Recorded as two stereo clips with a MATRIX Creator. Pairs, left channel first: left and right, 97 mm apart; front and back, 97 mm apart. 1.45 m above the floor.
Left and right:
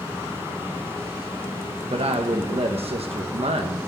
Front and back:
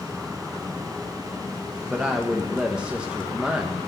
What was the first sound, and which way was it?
A woman speaking, 100° right.